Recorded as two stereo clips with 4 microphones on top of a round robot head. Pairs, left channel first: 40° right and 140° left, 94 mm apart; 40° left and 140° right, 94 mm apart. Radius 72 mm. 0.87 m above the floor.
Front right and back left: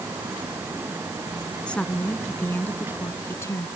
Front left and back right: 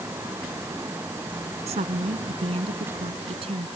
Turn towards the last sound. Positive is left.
turn(degrees=-105)